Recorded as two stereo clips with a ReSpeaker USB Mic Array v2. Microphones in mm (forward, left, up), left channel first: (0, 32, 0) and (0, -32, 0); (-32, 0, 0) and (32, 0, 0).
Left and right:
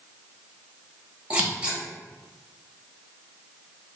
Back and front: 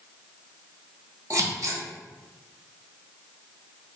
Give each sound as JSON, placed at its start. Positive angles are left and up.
{"t": 1.3, "sound": "scissors", "azimuth_deg": -20, "distance_m": 1.0}